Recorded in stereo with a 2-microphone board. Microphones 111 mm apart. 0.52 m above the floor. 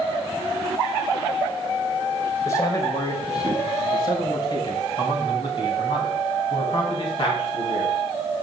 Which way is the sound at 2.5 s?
30° left (ahead or behind).